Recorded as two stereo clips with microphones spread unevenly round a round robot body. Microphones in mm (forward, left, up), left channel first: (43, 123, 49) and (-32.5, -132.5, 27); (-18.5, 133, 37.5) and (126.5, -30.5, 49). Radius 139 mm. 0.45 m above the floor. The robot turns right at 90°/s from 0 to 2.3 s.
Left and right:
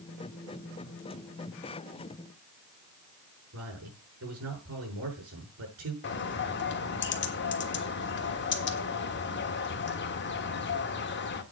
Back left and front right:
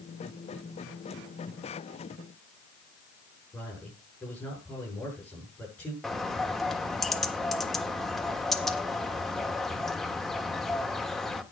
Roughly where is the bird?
Ahead left.